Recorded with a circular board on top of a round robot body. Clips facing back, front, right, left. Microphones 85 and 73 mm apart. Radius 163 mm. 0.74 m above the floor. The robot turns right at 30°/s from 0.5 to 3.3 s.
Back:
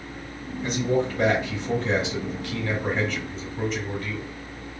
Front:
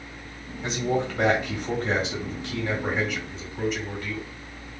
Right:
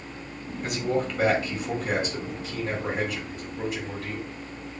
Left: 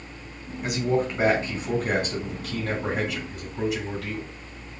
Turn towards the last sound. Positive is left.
turn(degrees=90)